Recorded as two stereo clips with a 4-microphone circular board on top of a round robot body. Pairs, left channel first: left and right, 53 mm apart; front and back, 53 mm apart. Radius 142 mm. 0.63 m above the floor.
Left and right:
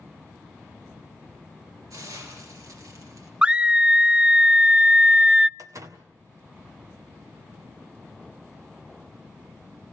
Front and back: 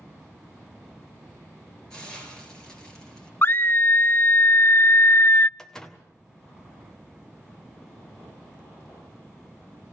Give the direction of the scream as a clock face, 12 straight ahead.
1 o'clock.